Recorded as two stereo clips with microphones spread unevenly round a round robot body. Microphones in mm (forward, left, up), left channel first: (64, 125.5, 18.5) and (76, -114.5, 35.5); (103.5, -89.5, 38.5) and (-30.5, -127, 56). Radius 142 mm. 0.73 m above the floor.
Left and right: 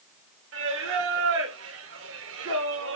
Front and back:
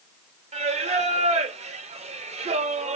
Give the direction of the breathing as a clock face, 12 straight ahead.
No breathing in this recording.